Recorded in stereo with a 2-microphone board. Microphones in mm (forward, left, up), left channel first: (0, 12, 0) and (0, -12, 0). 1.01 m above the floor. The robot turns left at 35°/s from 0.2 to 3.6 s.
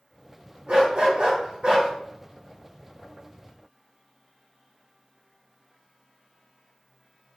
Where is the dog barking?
85° right, 1.3 m; by 1.9 s 125° right, 1.3 m.